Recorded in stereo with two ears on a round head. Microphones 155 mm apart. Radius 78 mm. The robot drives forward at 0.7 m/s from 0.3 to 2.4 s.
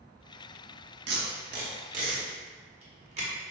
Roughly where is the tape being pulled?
Right.